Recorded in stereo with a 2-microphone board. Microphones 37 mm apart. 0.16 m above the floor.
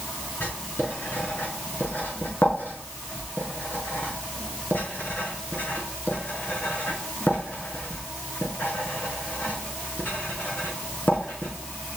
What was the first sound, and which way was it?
Writing, 85° left.